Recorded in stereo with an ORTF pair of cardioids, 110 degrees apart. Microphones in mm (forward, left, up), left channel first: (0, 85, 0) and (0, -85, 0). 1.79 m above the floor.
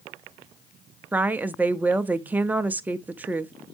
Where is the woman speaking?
10° right, 0.6 m.